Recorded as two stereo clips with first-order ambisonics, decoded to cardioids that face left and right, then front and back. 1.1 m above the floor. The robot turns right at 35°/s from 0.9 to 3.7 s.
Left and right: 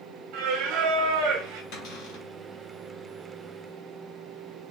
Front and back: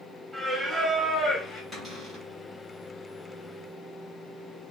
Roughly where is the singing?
Right.